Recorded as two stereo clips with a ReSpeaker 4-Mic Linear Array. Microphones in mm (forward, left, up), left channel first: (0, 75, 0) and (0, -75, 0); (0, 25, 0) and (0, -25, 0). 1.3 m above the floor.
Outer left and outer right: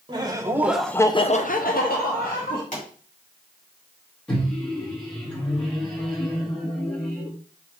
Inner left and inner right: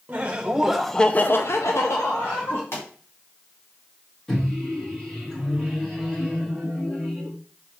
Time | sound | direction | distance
0.1 | laughter | 30° right (ahead or behind) | 1.2 m
2.7 | a pop | 60° left (ahead or behind) | 2.5 m
4.3 | a microwave | 5° left (ahead or behind) | 1.9 m